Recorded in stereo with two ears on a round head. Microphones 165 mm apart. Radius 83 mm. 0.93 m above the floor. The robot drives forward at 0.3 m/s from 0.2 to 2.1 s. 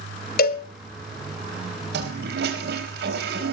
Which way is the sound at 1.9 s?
65° right (ahead or behind).